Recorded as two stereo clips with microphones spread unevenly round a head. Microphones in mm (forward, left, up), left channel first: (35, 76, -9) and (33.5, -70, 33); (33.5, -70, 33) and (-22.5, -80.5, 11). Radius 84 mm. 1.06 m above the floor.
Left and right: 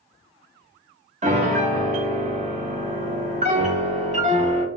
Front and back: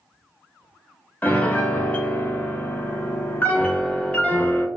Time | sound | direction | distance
1.2 | a piano | 75° right | 0.8 m